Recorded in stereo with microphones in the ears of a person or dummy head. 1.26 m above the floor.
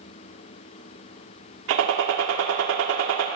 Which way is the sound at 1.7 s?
75° right (ahead or behind).